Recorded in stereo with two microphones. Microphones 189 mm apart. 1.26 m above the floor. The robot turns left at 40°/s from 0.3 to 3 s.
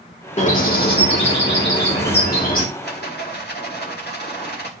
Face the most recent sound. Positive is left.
turn(degrees=70)  # may be behind; listen again after turning